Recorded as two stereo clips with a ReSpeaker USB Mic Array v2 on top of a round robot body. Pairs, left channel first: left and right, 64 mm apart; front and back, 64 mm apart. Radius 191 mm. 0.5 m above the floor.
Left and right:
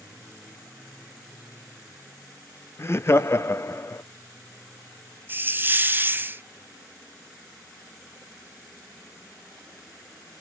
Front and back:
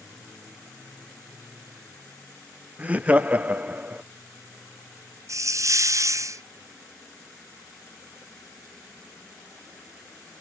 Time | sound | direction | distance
2.8 | laughter | 120° left | 0.8 m
5.3 | a hiss | 150° right | 0.7 m